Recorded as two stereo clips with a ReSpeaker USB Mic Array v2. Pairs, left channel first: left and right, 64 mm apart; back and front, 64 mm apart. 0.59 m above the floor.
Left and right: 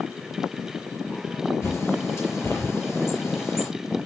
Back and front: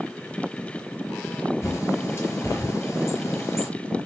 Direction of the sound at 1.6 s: 135° left.